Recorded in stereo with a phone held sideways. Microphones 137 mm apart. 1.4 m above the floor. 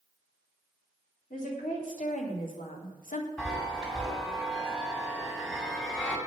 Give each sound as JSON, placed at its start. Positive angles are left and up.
{"t": 1.3, "sound": "a woman speaking", "side_deg": 80, "distance_m": 3.0}
{"t": 3.4, "sound": "a chime", "side_deg": 5, "distance_m": 2.0}